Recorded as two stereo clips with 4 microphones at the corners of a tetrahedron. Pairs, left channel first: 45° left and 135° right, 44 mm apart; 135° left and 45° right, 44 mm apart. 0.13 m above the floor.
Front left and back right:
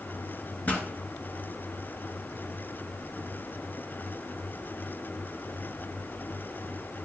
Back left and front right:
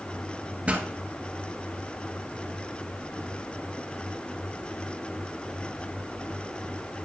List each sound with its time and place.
0.7 s a pop: 5° left, 1.4 m